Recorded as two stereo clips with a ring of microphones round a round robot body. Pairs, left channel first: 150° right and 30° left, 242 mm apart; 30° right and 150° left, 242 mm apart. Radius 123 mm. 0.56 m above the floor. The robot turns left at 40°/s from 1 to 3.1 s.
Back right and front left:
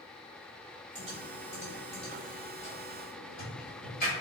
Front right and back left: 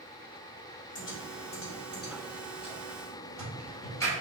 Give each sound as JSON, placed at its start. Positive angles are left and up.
{"t": 0.9, "sound": "typing on a keyboard", "azimuth_deg": -20, "distance_m": 1.8}